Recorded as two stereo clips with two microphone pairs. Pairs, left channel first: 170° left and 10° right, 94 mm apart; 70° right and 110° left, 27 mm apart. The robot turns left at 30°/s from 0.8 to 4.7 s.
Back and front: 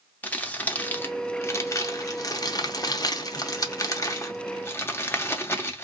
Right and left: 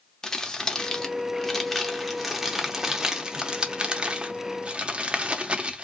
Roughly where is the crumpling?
Behind right.